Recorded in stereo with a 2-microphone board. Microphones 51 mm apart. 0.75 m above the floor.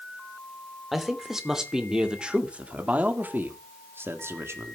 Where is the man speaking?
5° right (ahead or behind), 3 m; by 4.8 s 60° right (ahead or behind), 1.9 m.